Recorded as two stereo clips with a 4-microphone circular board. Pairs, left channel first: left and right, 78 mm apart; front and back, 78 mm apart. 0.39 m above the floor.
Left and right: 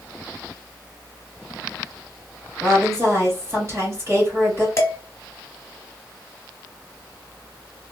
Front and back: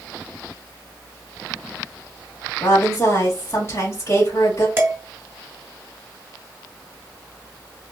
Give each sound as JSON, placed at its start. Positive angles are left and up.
{"t": 2.6, "sound": "a woman speaking", "azimuth_deg": -45, "distance_m": 1.6}
{"t": 4.8, "sound": "dishes clattering", "azimuth_deg": 130, "distance_m": 1.0}